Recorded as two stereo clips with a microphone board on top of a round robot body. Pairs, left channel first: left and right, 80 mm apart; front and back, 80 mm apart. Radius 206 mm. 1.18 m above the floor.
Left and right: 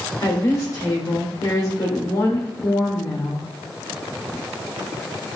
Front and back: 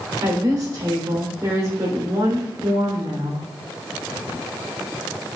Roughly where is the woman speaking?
Behind left.